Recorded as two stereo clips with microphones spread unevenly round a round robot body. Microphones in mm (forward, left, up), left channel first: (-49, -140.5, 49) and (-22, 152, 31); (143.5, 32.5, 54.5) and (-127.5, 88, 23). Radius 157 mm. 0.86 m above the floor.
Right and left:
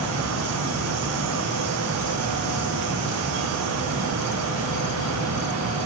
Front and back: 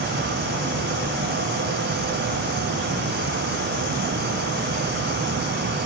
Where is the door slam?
I don't hear a door slam.